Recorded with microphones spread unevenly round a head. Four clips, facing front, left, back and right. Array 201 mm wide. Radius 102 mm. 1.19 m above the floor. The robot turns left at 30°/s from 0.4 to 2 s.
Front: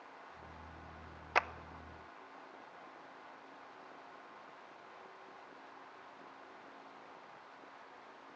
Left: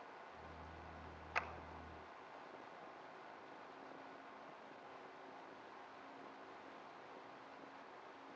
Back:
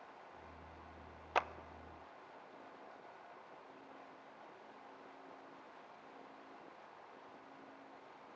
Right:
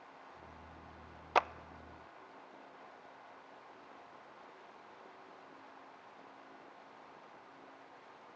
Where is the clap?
85° right, 0.6 m.